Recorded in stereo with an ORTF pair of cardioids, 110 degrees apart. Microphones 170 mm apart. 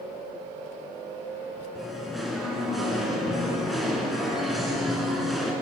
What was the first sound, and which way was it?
Singing, straight ahead.